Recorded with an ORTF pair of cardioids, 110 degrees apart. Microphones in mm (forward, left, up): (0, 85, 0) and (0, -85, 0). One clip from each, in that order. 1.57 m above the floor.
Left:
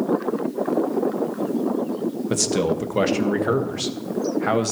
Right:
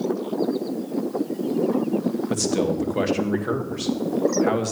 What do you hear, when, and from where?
2.3 s a man speaking: 20° left, 1.6 m